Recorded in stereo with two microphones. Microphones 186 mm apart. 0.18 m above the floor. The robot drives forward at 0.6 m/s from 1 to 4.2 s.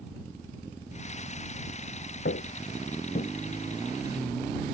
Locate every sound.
2.2 s footsteps: 80° left; by 3.3 s 55° left (ahead or behind)